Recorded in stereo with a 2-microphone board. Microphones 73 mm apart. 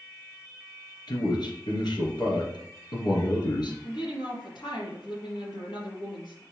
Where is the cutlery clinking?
No cutlery clinking in this recording.